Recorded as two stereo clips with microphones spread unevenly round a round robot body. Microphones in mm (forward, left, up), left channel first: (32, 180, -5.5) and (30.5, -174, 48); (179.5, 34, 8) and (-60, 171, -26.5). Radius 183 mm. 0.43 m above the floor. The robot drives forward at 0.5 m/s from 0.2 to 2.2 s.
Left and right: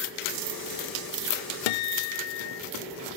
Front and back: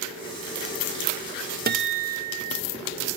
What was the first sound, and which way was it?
A guitar, 90° left.